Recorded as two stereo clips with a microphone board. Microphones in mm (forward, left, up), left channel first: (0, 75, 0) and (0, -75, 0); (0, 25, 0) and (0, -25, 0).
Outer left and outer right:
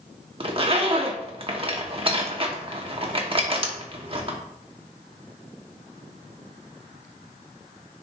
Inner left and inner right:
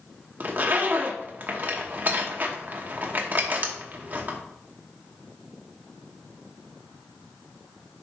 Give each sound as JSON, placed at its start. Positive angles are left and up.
{"t": 0.4, "sound": "a zipper", "side_deg": -35, "distance_m": 1.1}